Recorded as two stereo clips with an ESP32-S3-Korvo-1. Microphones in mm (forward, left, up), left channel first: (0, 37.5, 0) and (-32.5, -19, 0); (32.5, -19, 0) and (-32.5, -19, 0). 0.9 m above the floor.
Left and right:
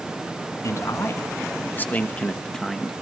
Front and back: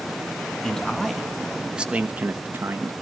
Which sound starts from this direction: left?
A man speaking, at 0.6 s.